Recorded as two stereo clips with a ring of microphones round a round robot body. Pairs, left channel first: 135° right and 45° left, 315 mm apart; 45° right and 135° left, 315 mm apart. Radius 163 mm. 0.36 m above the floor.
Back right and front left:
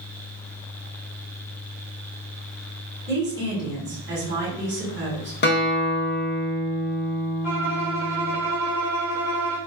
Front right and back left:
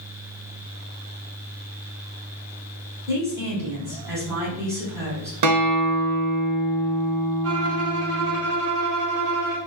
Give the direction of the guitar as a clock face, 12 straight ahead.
6 o'clock.